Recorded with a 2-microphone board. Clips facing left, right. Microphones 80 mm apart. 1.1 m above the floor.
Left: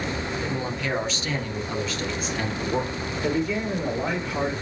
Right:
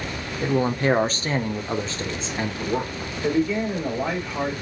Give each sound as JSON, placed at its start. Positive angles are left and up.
{"t": 0.4, "sound": "a man speaking", "side_deg": -40, "distance_m": 0.9}
{"t": 3.2, "sound": "a man speaking", "side_deg": 5, "distance_m": 2.5}